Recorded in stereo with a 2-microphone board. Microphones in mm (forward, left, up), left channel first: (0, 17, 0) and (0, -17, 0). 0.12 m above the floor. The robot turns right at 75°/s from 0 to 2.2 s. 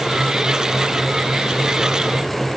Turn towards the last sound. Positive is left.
No sound to turn to.